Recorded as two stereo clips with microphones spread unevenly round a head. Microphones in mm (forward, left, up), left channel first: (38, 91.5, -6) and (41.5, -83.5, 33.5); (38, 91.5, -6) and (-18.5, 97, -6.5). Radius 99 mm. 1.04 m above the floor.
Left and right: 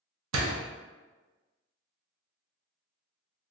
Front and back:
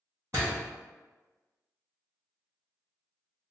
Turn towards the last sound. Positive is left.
turn(degrees=-115)